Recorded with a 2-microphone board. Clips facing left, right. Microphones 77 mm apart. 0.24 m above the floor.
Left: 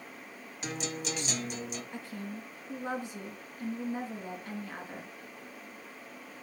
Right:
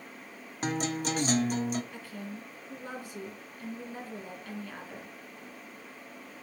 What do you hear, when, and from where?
0.6 s a guitar: 45° right (ahead or behind), 0.8 m
1.9 s a woman speaking: 20° left (ahead or behind), 2.5 m